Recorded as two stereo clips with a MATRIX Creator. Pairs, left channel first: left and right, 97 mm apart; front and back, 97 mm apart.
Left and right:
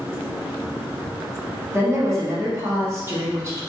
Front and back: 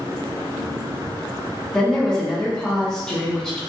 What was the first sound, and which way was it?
A woman speaking, 75° right.